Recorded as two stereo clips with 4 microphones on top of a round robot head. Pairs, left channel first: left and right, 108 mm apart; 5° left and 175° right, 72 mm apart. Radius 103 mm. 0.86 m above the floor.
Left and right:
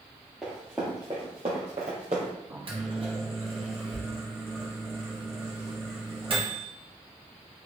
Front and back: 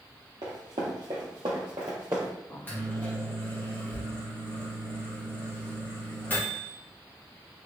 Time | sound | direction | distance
0.4 | running footsteps | straight behind | 1.1 m
2.5 | a microwave | 60° right | 1.1 m